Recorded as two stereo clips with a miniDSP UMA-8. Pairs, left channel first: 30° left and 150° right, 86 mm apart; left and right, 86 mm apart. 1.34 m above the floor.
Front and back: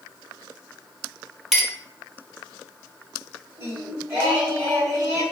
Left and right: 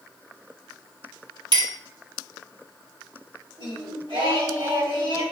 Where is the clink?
65° right, 1.0 m.